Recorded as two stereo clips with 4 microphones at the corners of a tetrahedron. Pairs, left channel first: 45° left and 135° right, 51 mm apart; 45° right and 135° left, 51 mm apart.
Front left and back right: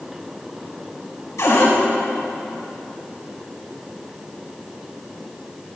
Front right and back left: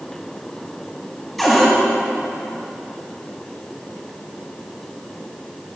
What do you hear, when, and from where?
1.4 s a cupboard door: 40° left, 4 m